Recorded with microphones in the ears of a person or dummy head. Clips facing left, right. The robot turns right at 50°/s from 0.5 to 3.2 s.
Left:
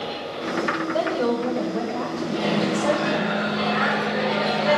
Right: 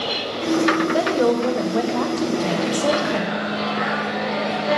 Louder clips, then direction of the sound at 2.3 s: Right 1 dB; 55° left.